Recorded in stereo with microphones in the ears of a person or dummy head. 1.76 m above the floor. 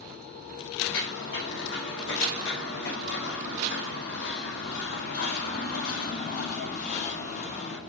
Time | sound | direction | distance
0.8 | footsteps | 75° left (ahead or behind) | 6 m